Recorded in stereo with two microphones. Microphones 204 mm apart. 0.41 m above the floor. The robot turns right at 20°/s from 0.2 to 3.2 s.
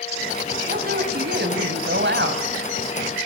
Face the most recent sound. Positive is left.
turn(degrees=-80)